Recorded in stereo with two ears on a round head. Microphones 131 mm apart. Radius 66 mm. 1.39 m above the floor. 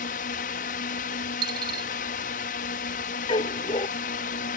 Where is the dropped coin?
30° right (ahead or behind).